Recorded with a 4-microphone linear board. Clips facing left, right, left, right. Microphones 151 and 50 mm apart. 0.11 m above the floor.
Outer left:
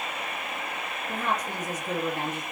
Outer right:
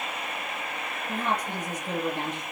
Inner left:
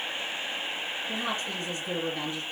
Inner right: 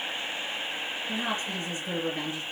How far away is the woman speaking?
About 2.5 m.